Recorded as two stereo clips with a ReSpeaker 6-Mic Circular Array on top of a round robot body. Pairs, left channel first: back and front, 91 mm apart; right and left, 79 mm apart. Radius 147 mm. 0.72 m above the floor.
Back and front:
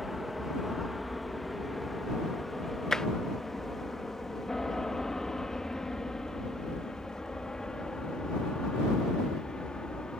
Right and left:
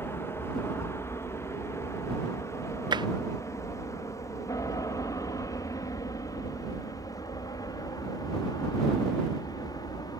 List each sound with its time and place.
0.0 s an aircraft: 85° right; by 10.2 s 100° right
2.9 s tapping: 95° left